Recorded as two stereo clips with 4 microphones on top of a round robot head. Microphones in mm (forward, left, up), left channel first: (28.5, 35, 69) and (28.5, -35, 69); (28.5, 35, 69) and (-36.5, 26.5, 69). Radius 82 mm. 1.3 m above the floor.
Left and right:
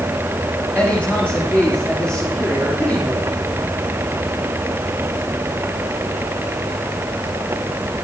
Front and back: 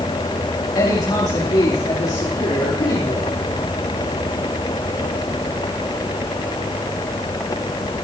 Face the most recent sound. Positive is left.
turn(degrees=10)